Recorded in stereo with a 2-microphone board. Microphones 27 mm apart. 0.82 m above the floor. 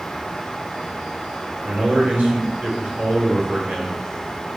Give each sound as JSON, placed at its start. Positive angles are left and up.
{"t": 1.6, "sound": "a man speaking", "side_deg": -55, "distance_m": 3.5}